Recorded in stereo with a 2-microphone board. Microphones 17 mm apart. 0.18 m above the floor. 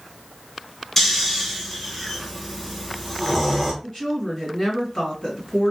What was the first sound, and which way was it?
Snoring, 10° left (ahead or behind).